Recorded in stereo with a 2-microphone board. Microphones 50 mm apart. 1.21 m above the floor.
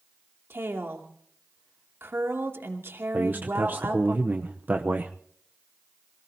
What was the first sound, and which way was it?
A woman speaking, 60° right (ahead or behind).